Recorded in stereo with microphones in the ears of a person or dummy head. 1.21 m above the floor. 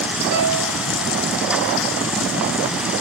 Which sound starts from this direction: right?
A piano, at 0.3 s.